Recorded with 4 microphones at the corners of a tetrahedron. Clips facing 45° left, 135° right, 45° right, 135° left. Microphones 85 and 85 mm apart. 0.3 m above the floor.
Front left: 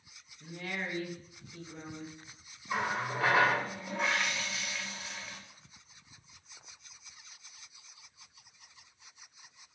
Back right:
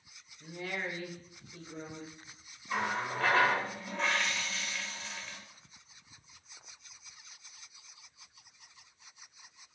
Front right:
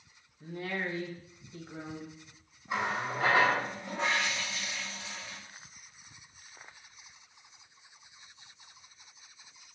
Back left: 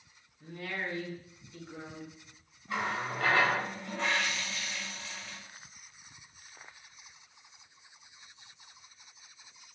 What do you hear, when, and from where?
0.4 s a woman speaking: 80° right, 1.0 m
2.7 s a running tap: 15° right, 0.6 m